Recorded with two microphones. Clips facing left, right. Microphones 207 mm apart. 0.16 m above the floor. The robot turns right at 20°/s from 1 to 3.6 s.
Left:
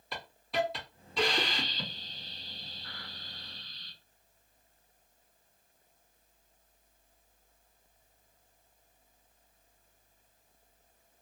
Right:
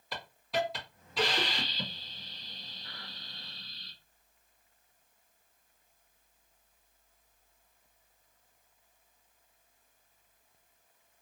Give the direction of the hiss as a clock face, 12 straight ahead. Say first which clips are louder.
Even; 6 o'clock.